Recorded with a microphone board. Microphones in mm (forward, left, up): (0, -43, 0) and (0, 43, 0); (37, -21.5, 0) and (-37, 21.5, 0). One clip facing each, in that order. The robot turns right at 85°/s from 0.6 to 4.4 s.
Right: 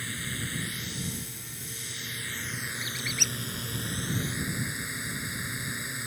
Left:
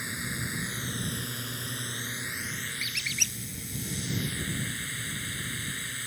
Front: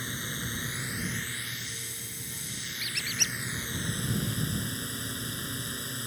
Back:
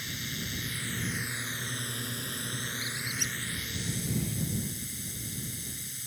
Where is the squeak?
45° right; by 3.4 s 5° left.